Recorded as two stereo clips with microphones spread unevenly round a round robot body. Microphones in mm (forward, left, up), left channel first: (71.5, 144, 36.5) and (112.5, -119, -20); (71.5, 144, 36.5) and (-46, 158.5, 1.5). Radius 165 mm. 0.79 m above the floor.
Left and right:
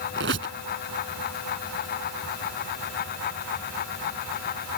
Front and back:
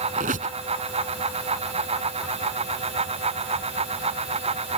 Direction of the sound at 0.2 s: 140° right.